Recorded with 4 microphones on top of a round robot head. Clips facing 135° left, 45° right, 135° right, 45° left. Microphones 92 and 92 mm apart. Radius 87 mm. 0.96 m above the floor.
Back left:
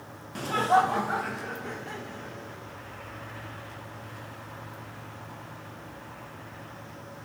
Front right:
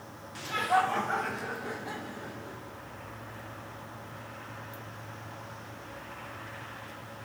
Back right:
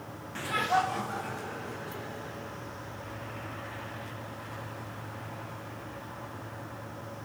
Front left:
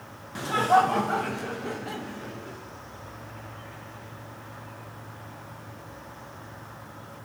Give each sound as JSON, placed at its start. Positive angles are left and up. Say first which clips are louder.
{"t": 0.3, "sound": "laughter", "louder": "back left 4 dB, front left 7 dB", "azimuth_deg": 115, "distance_m": 0.8}